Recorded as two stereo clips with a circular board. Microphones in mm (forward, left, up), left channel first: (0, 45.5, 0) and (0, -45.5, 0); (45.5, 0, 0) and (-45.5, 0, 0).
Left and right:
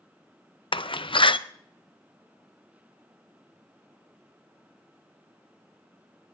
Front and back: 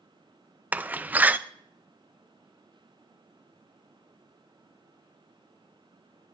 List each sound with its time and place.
0.7 s a door slam: 110° left, 0.6 m